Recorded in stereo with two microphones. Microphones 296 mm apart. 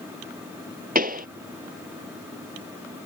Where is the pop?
30° right (ahead or behind).